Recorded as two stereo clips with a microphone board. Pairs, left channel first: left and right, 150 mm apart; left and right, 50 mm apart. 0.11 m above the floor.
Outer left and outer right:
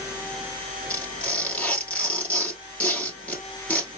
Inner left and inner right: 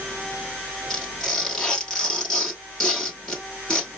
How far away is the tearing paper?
About 1.6 m.